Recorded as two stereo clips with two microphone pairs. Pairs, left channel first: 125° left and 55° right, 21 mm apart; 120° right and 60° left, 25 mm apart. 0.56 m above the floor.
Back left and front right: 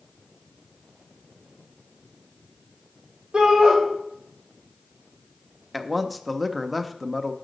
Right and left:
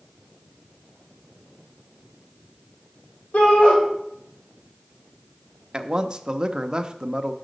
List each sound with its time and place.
3.3 s a shout: 100° right, 2.5 m
5.7 s a man speaking: 25° left, 0.7 m